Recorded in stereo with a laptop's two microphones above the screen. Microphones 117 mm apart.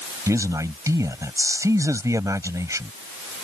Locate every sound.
0.3 s a man speaking: 25° right (ahead or behind)